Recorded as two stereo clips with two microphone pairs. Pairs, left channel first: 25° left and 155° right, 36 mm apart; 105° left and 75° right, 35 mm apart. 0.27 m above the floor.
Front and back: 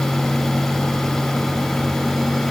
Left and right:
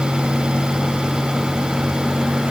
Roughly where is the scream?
I don't hear a scream.